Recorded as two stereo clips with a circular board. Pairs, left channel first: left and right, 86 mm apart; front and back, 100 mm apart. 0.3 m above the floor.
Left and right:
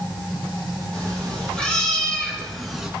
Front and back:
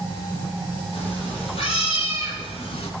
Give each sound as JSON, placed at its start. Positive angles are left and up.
{"t": 0.9, "sound": "a cat meowing", "azimuth_deg": 10, "distance_m": 2.5}